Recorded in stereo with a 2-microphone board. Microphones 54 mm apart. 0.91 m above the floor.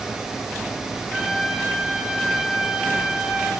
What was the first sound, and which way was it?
A trumpet, 10° right (ahead or behind).